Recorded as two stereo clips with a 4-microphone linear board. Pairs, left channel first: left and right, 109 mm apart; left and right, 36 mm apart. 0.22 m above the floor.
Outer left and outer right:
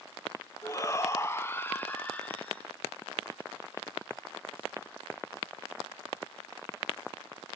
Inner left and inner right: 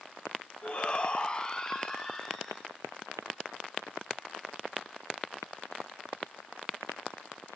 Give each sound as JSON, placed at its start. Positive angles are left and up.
{"t": 0.6, "sound": "a shout", "side_deg": 30, "distance_m": 1.0}